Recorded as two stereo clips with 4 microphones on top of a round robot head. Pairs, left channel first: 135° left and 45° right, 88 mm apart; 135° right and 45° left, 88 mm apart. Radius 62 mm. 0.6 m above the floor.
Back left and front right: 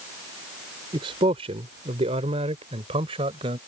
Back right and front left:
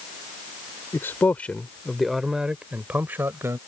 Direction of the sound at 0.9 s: 75° right.